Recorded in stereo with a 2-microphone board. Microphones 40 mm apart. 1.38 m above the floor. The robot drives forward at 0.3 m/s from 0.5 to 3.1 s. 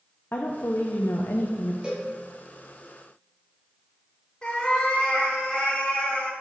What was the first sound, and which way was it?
A woman speaking, 70° left (ahead or behind).